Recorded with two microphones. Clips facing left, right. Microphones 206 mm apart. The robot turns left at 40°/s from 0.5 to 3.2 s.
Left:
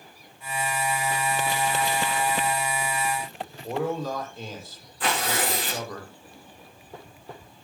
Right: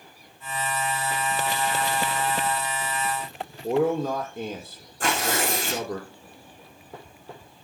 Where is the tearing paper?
45° right (ahead or behind), 8 m.